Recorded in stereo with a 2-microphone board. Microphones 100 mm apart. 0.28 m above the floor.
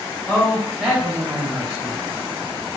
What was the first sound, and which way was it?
A man speaking, 20° left (ahead or behind).